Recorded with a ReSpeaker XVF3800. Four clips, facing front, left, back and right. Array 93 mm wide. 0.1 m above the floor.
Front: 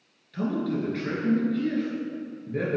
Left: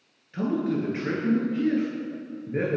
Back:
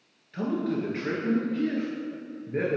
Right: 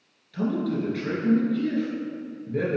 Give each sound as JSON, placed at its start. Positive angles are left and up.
{"t": 0.3, "sound": "a man speaking", "azimuth_deg": 120, "distance_m": 1.2}